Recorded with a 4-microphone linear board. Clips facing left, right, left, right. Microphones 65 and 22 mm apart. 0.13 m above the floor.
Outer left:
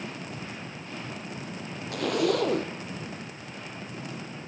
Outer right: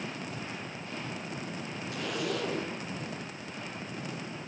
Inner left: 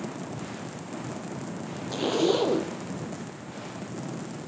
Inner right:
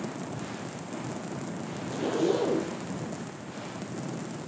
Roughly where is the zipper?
Left.